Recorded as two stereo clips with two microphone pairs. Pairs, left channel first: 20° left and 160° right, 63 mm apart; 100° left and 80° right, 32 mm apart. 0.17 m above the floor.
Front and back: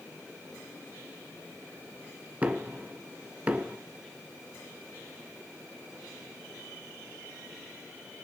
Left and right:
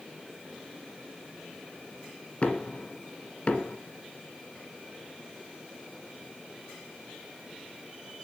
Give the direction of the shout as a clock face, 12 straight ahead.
I don't hear a shout.